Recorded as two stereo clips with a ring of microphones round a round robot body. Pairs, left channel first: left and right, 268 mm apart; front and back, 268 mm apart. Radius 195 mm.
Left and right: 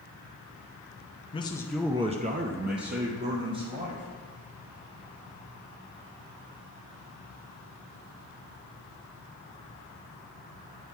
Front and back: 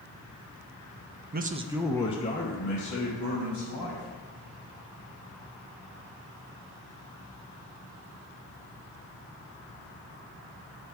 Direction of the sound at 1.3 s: 150° left.